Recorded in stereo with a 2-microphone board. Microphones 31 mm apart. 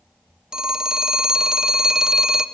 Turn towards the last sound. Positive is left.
turn(degrees=-25)  # may be behind; listen again after turning